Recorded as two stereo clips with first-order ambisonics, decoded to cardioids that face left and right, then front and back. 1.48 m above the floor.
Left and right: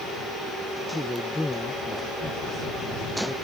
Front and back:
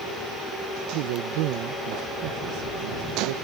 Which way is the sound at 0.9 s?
175° left.